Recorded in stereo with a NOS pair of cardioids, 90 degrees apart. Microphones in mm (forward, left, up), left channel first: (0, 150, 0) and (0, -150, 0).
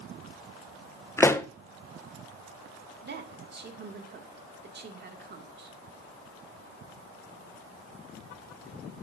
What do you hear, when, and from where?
1.2 s a pop: 10° left, 0.6 m
3.0 s a woman speaking: 35° right, 2 m